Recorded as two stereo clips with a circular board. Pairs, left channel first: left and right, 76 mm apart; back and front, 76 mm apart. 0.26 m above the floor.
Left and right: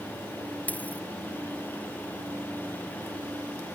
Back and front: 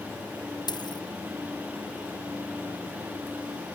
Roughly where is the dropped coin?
Behind.